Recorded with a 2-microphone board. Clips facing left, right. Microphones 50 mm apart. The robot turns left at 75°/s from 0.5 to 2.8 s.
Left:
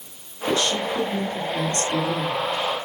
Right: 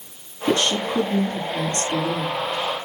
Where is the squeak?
I don't hear a squeak.